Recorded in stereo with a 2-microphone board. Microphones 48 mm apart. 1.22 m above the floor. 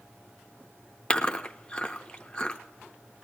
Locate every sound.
1.1 s chewing: 20° left (ahead or behind), 0.7 m